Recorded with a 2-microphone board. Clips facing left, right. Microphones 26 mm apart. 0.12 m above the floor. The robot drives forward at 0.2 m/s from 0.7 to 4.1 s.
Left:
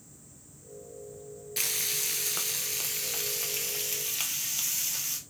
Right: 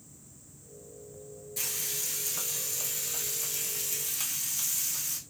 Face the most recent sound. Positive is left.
turn(degrees=35)  # may be behind; listen again after turning